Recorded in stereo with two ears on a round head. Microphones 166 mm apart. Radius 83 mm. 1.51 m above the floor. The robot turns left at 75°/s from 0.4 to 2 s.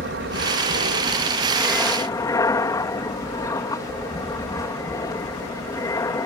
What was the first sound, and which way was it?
An aircraft, 80° right.